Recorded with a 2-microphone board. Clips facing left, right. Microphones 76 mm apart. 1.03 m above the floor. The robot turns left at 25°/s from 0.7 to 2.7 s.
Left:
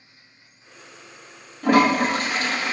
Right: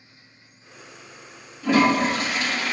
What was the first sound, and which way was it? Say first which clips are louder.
A toilet flushing: left 1 dB; 55° left (ahead or behind).